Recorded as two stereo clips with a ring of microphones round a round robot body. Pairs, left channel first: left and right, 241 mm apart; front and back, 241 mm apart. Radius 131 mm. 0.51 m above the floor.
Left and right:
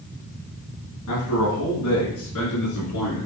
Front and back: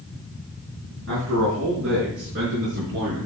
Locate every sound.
1.1 s a man speaking: 130° left, 4 m; by 3.3 s 125° left, 5.5 m